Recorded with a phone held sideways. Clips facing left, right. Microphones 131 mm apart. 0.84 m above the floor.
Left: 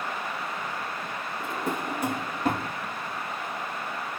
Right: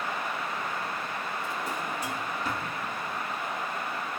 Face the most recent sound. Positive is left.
turn(degrees=55)  # may be behind; listen again after turning